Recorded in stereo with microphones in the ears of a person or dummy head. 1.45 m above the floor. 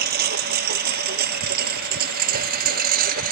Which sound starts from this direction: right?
A lawn mower, at 0.0 s.